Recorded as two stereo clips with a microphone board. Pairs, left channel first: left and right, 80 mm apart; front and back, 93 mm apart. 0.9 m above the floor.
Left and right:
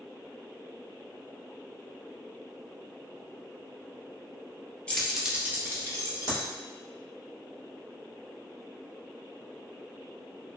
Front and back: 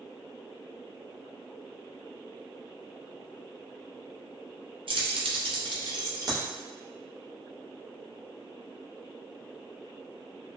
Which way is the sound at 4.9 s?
165° left.